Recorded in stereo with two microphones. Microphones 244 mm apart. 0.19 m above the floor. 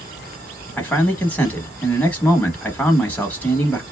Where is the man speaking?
5° left (ahead or behind), 1.1 m.